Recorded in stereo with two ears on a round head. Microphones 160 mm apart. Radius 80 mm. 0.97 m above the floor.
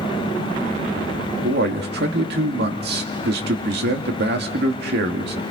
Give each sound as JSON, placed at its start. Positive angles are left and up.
{"t": 1.4, "sound": "a man speaking", "side_deg": -65, "distance_m": 2.0}